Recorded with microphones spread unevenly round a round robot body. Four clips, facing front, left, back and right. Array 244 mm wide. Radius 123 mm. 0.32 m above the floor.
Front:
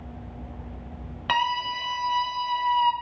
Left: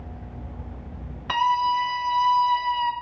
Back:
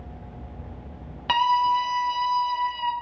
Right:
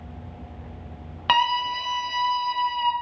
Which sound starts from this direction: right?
A scream, at 1.3 s.